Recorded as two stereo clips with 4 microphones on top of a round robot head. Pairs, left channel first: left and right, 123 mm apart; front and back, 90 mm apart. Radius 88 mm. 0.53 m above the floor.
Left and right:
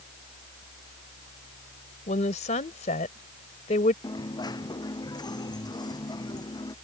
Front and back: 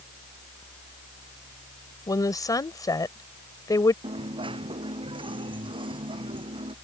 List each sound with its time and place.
2.1 s a woman speaking: 50° left
4.0 s a dropped coin: 150° left